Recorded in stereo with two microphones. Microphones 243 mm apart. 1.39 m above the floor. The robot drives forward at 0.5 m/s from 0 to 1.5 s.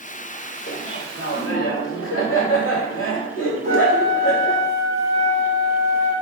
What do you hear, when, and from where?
0.7 s laughter: 75° left (ahead or behind), 1.6 m; by 4.7 s 65° left (ahead or behind), 1.7 m
3.6 s a flute: 30° left (ahead or behind), 1.4 m